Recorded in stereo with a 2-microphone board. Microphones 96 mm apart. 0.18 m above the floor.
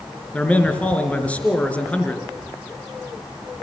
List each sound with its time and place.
0.3 s a man speaking: 15° left (ahead or behind), 3.5 m